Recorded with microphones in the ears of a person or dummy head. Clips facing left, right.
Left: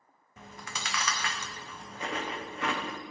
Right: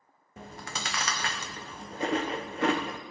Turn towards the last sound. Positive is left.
turn(degrees=-30)  # may be behind; listen again after turning